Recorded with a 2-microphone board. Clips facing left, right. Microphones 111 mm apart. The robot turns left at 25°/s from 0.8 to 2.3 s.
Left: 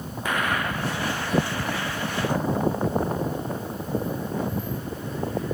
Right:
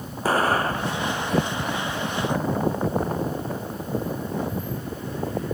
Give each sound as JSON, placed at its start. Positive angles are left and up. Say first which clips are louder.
{"t": 0.2, "sound": "an explosion", "louder": "right 5 dB", "side_deg": -35}